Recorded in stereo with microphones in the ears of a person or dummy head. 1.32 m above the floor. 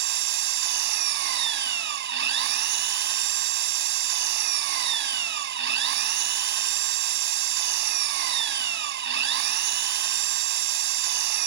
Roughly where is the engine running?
Right.